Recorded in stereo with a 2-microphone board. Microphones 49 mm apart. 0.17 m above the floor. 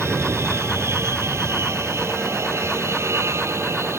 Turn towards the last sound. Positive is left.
turn(degrees=-70)  # may be behind; listen again after turning